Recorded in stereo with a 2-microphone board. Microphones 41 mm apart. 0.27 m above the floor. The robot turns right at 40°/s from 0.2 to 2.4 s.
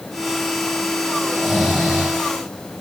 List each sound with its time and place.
1.2 s snoring: 175° left, 8.5 m; by 2.2 s 150° right, 8.5 m